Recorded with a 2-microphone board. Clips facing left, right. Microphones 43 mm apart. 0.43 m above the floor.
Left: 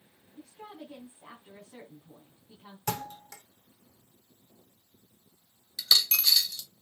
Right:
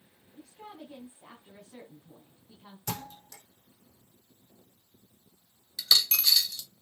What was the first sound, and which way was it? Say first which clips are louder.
A woman speaking: left 1 dB; 5° left (ahead or behind).